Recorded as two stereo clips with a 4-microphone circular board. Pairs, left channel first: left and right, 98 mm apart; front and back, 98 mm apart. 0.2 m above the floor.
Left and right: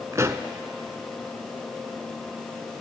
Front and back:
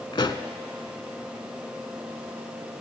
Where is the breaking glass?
No breaking glass in this recording.